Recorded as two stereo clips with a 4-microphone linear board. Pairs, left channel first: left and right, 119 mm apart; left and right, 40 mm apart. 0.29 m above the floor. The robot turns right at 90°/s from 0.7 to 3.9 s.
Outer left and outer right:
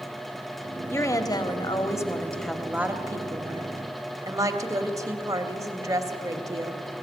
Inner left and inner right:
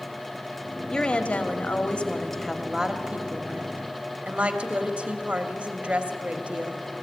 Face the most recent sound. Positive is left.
turn(degrees=-55)